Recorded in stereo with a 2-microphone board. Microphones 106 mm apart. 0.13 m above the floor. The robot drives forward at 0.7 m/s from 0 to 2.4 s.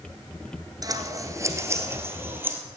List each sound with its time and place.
0.8 s scissors: 35° right (ahead or behind), 1.2 m; by 2.6 s 20° right (ahead or behind), 2 m